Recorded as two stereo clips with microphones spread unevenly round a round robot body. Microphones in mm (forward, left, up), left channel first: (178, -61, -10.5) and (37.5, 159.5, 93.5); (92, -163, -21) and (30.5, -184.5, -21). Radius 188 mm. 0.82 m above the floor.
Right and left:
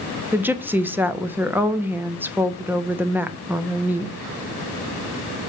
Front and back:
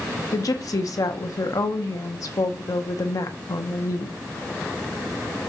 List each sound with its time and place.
0.3 s a woman speaking: 25° left, 1.2 m